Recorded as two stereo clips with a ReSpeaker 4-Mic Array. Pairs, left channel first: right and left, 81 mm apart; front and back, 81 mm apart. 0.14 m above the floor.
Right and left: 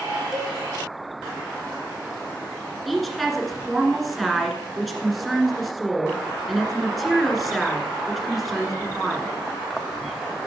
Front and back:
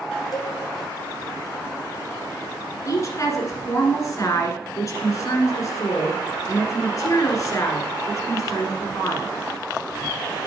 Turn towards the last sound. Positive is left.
turn(degrees=0)